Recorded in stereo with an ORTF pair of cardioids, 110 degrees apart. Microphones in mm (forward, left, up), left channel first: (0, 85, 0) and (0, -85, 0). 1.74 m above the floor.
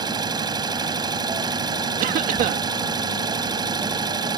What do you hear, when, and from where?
0.0 s an engine running: 25° right
2.0 s a cough: 60° right